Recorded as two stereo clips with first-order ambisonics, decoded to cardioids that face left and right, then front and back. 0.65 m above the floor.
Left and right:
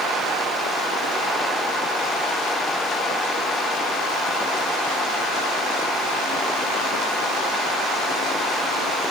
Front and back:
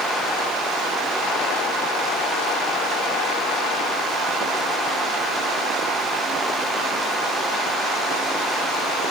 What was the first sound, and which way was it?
Only background noise.